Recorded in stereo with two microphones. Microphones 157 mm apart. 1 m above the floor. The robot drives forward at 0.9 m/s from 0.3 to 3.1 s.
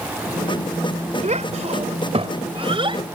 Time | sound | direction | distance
1.2 | a child speaking | 50° right (ahead or behind) | ?